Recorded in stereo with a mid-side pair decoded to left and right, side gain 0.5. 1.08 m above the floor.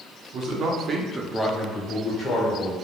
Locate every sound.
0.3 s a man speaking: 65° right, 0.7 m; by 2.8 s 45° left, 0.9 m